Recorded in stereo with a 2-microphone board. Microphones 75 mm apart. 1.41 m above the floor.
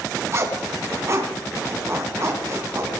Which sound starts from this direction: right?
A zipper, at 0.3 s.